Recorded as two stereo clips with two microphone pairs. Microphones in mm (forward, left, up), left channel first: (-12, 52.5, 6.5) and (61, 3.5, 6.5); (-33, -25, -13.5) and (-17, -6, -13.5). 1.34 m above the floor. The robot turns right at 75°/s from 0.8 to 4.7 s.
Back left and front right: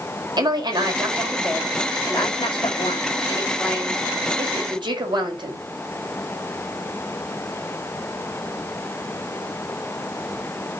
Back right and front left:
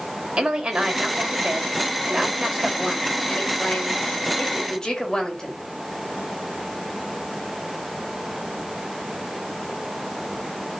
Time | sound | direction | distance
0.4 | a woman speaking | 5° left | 4.5 m